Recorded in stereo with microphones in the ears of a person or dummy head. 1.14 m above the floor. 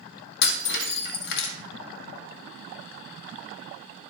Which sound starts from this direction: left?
Breaking glass, at 0.4 s.